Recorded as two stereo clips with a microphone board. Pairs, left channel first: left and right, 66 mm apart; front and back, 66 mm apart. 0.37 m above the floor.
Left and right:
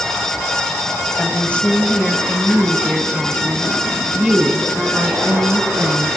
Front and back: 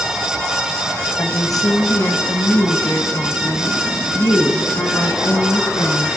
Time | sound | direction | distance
1.2 | a woman speaking | 25° left | 3 m